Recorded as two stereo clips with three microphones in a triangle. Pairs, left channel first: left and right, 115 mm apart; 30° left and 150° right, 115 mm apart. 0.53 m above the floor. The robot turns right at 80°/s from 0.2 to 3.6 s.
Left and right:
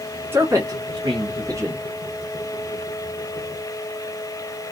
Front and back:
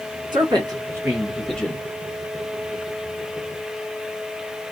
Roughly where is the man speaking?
Behind right.